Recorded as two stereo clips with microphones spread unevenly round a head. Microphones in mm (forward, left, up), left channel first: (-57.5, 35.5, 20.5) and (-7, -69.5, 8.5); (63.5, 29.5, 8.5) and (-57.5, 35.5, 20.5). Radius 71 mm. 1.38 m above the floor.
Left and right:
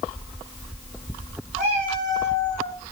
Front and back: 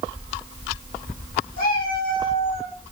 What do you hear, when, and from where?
1.6 s a cat meowing: 15° right, 6.5 m; by 2.8 s straight ahead, 6.5 m